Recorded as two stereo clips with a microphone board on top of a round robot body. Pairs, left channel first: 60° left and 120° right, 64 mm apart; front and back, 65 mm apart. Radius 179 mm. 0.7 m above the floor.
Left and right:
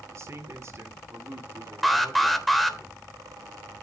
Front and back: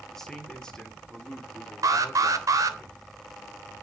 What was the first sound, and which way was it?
A man speaking, 85° right.